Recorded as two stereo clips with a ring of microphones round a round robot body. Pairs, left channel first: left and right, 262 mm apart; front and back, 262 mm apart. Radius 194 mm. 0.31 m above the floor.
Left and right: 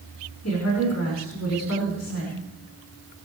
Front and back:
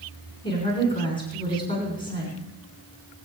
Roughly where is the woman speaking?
Ahead left.